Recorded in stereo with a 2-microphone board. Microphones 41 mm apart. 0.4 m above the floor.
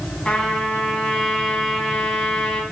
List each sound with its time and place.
0.2 s a trumpet: 25° left (ahead or behind), 3.5 m